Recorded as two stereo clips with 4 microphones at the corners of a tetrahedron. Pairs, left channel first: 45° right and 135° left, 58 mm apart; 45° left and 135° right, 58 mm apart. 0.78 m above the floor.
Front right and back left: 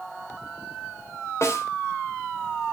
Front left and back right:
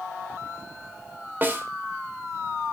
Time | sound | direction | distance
1.4 | a snare drum | 80° right | 3 m